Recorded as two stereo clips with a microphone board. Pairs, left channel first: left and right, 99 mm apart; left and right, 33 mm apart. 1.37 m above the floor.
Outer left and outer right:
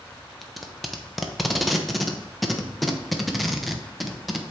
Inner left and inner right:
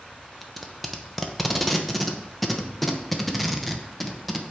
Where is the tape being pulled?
Centre (ahead or behind), 0.7 m.